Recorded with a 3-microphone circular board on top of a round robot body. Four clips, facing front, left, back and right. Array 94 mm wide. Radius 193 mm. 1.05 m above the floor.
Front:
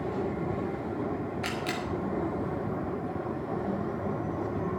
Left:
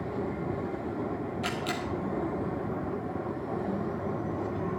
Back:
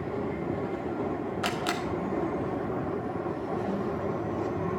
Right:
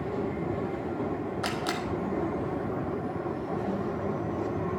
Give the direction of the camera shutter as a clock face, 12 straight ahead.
5 o'clock.